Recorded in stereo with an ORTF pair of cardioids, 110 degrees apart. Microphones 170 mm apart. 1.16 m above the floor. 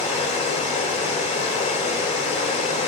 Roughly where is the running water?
Ahead left.